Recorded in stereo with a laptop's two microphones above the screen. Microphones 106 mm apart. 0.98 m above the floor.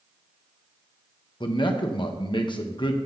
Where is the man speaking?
50° left (ahead or behind), 0.8 m.